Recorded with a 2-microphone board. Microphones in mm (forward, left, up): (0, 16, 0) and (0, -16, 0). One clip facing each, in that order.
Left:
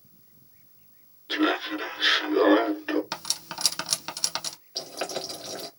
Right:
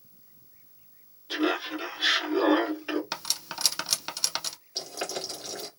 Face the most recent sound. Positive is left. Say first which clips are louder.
# left 2 dB
turn(degrees=25)  # may be behind; listen again after turning